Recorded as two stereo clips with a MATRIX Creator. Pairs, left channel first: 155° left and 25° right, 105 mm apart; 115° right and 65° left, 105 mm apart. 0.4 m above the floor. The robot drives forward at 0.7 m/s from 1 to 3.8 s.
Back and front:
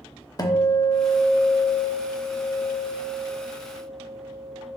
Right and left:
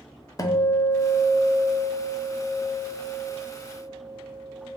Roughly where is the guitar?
Behind.